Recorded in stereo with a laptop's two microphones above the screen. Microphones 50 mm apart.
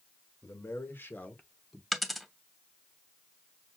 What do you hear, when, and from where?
0.4 s a man speaking: 60° left (ahead or behind), 1.3 m; by 1.8 s 10° right (ahead or behind), 0.6 m
1.9 s a dropped coin: 5° right (ahead or behind), 0.7 m